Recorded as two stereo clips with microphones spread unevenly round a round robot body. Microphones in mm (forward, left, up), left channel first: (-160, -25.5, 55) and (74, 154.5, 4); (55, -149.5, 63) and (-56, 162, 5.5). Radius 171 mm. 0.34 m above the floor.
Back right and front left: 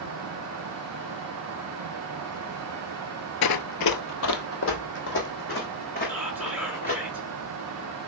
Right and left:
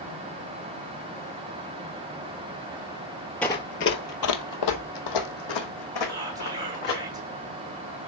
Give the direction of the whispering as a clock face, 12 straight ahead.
9 o'clock.